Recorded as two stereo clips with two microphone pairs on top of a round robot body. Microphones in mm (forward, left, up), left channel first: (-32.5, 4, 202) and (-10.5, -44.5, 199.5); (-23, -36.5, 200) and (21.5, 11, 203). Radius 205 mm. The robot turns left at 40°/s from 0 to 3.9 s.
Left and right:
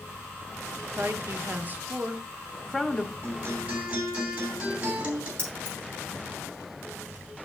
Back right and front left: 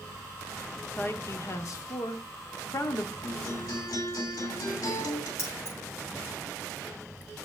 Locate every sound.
1.0 s a woman speaking: 85° right, 1.4 m; by 3.1 s 175° right, 1.4 m
3.2 s a guitar: 110° right, 3 m; by 5.3 s 135° right, 3 m
5.4 s keys jangling: straight behind, 5 m